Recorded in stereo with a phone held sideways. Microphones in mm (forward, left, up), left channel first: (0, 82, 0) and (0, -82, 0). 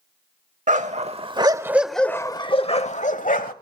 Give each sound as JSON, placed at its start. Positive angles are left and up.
{"t": 0.7, "sound": "a dog barking", "side_deg": -50, "distance_m": 1.0}